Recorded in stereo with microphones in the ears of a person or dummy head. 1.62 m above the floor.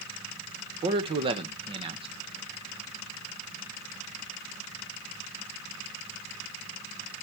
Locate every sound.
0.8 s a man speaking: 30° right (ahead or behind), 1.1 m